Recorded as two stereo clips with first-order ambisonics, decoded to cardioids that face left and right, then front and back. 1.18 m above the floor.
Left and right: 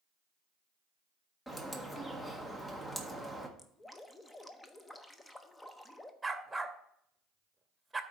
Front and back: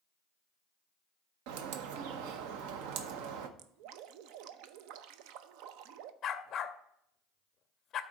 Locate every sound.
1.5 s a bird: 175° left, 0.9 m
3.6 s dripping: 170° left, 0.6 m
6.2 s a dog barking: 15° right, 0.6 m